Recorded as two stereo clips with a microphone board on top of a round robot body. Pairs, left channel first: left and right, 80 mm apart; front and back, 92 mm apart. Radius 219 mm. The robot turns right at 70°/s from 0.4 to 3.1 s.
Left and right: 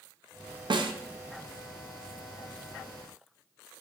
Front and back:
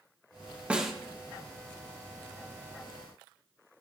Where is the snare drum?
105° right, 0.7 m; by 0.9 s 90° right, 0.7 m.